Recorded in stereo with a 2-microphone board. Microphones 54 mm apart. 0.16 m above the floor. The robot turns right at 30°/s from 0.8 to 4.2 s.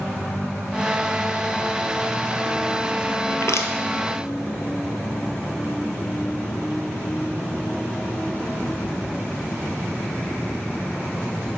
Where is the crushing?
70° left (ahead or behind), 0.9 m; by 3.7 s 75° left (ahead or behind), 0.9 m.